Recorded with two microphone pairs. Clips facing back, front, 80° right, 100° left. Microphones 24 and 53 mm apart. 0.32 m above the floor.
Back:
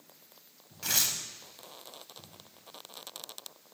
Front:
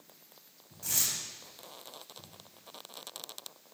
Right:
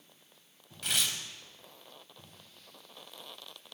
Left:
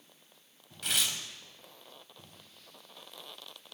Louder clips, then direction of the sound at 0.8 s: Back 3 dB, even; 165° right.